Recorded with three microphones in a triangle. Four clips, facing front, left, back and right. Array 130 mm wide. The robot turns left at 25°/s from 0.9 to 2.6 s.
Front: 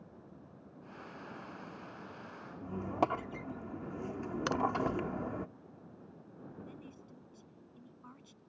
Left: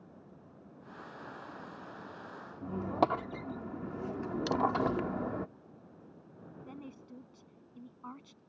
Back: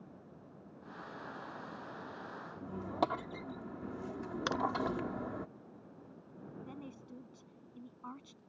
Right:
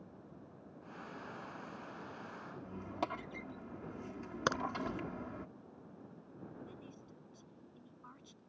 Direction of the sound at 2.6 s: 80° left.